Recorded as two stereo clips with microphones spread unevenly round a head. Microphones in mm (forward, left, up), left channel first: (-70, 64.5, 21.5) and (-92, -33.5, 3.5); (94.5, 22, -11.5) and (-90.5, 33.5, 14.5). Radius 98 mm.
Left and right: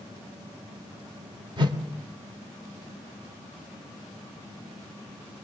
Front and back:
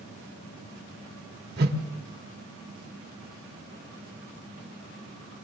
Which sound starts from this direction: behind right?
A whoosh, at 1.6 s.